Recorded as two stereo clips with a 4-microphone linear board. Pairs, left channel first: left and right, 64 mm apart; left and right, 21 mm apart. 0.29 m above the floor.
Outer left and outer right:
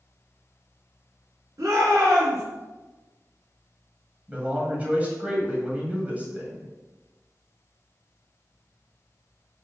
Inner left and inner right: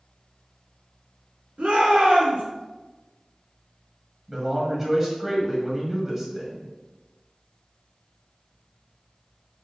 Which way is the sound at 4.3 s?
25° right (ahead or behind).